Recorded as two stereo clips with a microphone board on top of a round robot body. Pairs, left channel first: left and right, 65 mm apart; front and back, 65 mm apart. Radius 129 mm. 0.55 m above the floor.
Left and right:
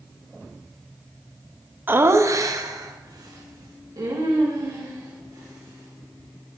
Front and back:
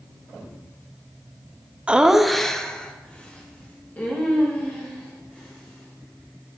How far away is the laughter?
About 0.7 m.